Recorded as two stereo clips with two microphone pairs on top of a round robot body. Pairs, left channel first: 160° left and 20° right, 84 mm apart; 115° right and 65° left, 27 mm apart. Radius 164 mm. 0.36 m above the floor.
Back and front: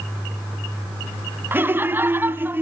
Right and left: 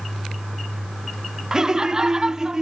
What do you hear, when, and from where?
1.5 s laughter: 5° left, 1.0 m